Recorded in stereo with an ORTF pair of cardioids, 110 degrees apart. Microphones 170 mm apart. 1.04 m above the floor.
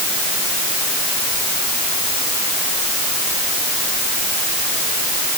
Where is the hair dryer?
I don't hear a hair dryer.